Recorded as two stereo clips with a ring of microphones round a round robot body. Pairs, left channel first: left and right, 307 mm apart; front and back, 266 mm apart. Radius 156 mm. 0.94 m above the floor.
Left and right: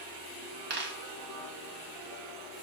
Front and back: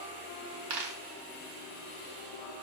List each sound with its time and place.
0.7 s a dropped coin: 150° right, 0.8 m